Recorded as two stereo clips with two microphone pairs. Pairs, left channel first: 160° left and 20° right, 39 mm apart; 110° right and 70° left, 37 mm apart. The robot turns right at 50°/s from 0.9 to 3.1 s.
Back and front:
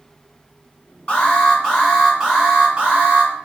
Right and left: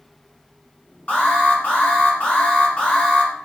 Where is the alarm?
160° right, 1.1 m; by 3.3 s 60° right, 1.1 m.